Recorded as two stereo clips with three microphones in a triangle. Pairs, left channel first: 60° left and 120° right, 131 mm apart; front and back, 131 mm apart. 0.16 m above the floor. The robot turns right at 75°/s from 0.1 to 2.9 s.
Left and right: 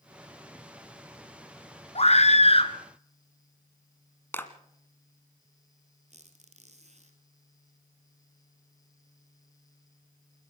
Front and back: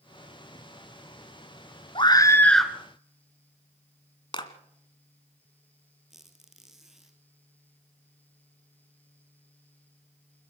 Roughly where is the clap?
Ahead.